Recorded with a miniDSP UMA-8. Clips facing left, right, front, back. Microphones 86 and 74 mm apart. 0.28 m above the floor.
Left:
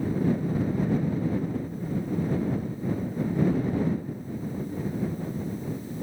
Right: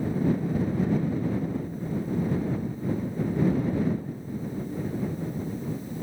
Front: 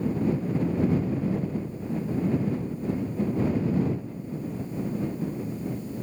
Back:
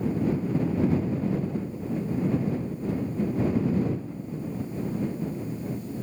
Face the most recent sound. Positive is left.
No sound to turn to.